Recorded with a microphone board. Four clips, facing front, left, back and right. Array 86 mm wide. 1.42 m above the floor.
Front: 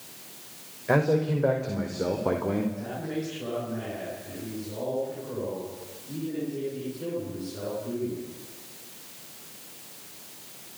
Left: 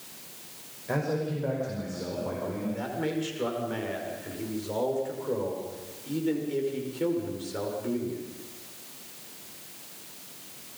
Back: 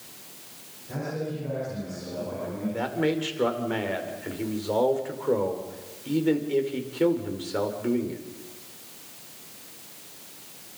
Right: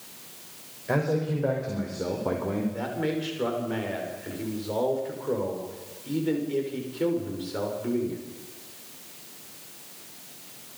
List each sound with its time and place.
0.9 s a man speaking: 10° right, 5.5 m; by 2.6 s 30° right, 3.5 m
2.7 s a man speaking: 170° right, 5.5 m